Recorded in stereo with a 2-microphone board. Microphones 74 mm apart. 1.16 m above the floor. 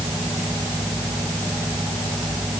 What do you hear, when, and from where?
Only background noise.